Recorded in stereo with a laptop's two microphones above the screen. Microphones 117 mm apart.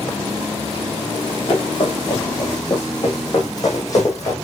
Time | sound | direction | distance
1.1 | running footsteps | 40° left (ahead or behind) | 4.5 m